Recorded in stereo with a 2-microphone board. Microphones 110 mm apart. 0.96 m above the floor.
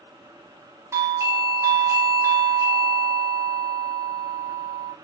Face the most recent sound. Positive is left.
turn(degrees=-25)  # may be behind; listen again after turning